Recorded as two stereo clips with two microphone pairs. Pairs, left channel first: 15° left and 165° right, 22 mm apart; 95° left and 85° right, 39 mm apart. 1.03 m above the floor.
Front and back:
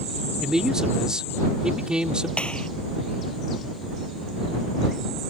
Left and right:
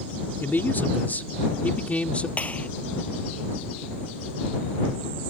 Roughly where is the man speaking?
Behind left.